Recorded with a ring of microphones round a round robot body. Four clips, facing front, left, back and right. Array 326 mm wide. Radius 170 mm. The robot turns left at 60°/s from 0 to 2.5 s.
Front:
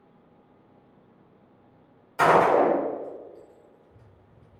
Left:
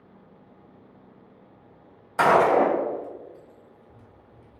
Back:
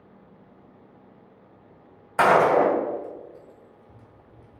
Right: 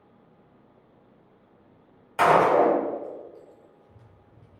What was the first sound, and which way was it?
A gunshot, 165° left.